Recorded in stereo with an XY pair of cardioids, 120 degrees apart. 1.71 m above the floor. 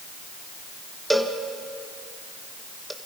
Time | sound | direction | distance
1.1 | a cowbell | 10° right | 2 m